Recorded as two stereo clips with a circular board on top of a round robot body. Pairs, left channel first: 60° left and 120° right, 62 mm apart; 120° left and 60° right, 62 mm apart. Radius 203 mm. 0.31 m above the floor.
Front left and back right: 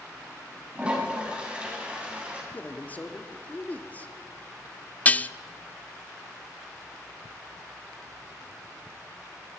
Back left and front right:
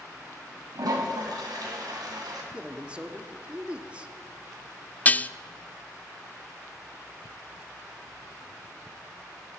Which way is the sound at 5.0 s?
90° left.